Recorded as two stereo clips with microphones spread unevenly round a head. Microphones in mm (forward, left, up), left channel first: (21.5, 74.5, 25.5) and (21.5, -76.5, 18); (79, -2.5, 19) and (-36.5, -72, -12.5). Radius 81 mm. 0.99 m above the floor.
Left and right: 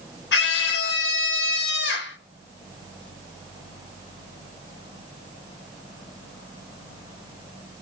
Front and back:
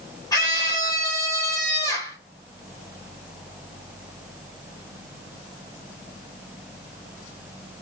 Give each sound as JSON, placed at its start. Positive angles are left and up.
{"t": 0.3, "sound": "a scream", "azimuth_deg": 105, "distance_m": 4.0}